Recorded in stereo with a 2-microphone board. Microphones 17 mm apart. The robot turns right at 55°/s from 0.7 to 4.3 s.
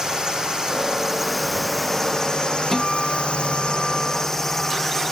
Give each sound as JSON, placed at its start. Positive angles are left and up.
{"t": 0.0, "sound": "a drone", "azimuth_deg": -40}
{"t": 2.7, "sound": "a guitar", "azimuth_deg": 40}